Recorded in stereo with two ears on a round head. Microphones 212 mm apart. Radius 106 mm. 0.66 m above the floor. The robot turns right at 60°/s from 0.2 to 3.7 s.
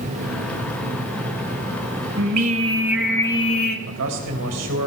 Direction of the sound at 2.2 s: 50° right.